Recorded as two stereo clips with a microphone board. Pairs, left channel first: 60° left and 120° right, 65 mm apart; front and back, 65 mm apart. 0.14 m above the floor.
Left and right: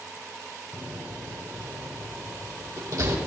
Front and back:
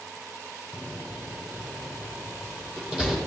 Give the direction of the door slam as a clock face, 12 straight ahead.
3 o'clock.